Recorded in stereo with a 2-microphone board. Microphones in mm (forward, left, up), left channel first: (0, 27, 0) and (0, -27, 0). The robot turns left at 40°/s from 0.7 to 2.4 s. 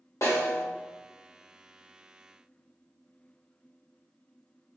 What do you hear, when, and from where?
0.2 s a snare drum: 70° left (ahead or behind), 1.8 m